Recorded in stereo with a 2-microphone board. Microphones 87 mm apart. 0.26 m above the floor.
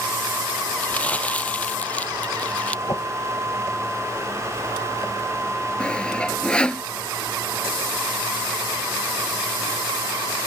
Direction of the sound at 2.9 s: 40° left (ahead or behind).